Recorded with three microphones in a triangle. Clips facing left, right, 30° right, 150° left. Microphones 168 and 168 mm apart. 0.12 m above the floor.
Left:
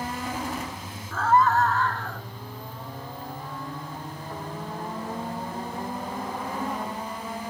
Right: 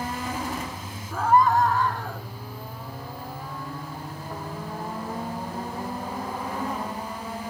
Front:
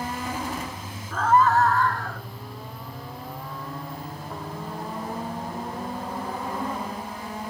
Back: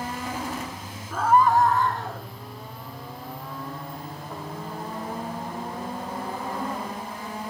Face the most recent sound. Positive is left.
turn(degrees=-160)